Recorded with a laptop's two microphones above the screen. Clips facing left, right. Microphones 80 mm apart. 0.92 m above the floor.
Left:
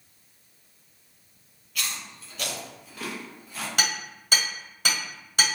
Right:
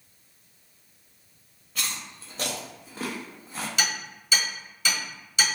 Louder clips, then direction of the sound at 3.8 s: Left 2 dB; 50° left (ahead or behind).